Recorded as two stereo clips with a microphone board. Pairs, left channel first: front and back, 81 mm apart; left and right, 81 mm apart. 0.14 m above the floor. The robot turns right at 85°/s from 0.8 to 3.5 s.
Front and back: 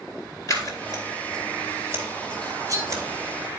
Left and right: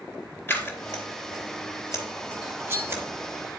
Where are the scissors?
30° left, 3.5 m; by 3.0 s 145° right, 3.5 m.